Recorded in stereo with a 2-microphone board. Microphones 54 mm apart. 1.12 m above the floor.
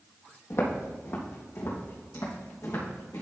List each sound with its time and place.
0.5 s footsteps: 60° left (ahead or behind), 2 m; by 3.2 s 70° left (ahead or behind), 4 m